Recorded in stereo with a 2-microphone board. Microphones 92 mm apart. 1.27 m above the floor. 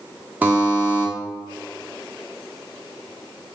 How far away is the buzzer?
About 0.8 m.